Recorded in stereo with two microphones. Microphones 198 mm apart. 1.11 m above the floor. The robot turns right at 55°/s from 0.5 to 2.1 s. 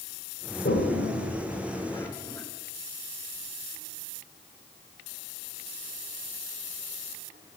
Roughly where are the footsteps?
I don't hear footsteps.